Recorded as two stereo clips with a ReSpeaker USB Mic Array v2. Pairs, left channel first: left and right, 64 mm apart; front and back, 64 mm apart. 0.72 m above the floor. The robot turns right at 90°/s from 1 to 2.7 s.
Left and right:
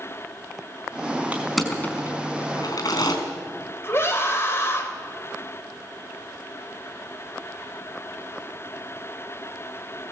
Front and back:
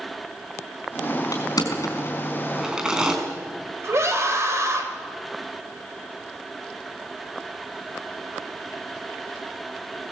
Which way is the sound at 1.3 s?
20° right.